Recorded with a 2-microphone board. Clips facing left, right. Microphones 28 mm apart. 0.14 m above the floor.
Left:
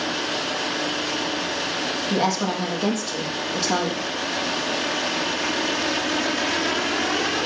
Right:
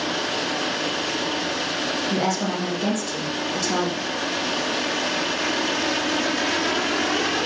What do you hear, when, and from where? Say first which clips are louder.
2.1 s a woman speaking: left 4 dB; 25° left (ahead or behind), 4.5 m